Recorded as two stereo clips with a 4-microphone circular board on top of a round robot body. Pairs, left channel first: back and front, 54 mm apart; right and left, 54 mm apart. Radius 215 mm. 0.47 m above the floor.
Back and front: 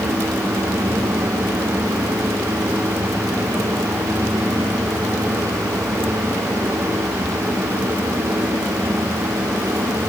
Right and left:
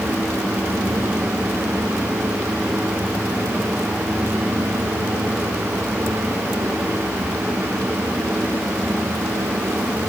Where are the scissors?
I don't hear scissors.